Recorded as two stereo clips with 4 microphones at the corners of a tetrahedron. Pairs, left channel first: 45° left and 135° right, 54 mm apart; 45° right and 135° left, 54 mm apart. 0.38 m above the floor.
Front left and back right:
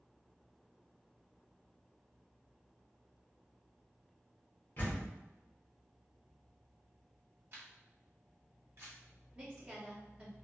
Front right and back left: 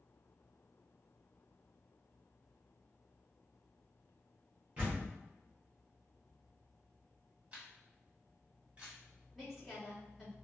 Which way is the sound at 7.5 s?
165° right.